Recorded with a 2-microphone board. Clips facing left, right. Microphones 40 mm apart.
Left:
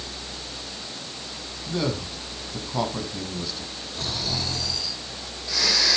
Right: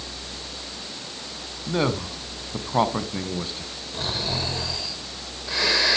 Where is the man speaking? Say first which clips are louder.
Right 3 dB; 35° right (ahead or behind), 2.5 m.